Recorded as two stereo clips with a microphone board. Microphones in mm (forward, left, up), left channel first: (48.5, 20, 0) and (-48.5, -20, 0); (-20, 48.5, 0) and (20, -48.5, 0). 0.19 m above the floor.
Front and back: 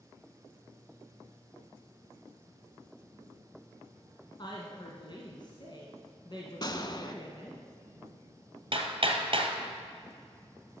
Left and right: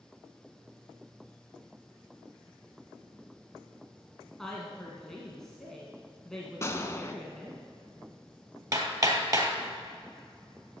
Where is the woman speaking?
30° left, 1.6 m.